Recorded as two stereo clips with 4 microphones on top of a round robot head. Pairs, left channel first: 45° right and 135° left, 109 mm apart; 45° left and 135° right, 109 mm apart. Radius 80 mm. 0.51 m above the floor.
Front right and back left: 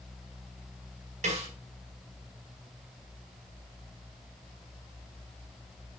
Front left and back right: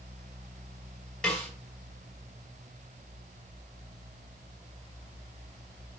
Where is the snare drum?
130° left, 5.5 m.